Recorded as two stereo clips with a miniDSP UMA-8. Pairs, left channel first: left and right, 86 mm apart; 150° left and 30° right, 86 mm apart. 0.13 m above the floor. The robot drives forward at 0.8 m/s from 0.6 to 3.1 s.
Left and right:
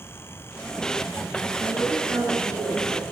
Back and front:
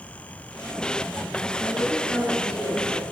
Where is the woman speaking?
120° right, 1.9 m; by 3.0 s 150° right, 2.5 m.